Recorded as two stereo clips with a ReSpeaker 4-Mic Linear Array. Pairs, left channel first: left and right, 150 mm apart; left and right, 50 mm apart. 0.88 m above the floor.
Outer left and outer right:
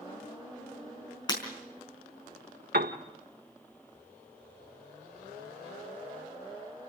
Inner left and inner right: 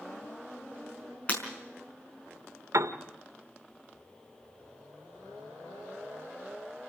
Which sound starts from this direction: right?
A piano, at 2.7 s.